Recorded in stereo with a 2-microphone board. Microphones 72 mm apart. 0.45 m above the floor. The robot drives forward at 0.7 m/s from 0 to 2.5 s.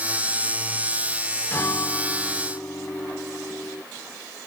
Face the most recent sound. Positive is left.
turn(degrees=30)  # may be behind; listen again after turning